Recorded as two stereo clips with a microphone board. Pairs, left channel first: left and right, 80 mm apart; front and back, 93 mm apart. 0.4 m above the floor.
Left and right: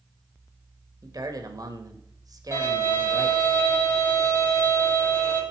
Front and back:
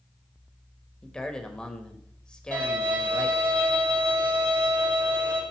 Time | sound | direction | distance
1.0 | a man speaking | 80° right | 1.6 m
2.5 | a violin | 135° left | 3 m